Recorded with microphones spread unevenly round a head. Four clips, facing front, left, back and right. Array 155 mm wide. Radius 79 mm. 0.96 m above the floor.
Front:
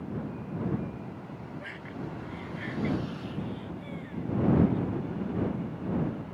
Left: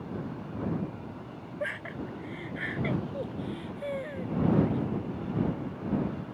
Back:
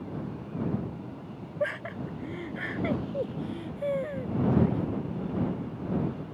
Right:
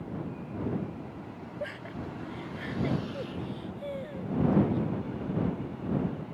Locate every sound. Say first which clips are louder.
1.6 s laughter: left 3 dB, back 12 dB; 175° left